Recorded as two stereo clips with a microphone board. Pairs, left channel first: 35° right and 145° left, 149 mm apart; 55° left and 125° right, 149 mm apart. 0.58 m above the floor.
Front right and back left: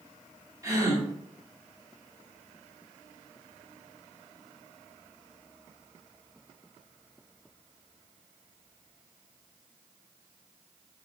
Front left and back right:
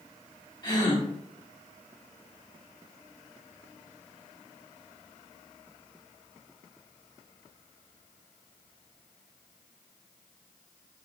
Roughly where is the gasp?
Left.